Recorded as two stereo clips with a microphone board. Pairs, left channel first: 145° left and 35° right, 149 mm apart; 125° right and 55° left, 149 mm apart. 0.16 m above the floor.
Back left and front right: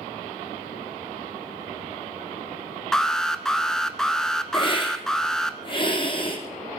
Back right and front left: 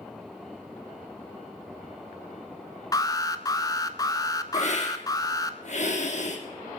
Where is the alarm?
135° right, 0.9 m.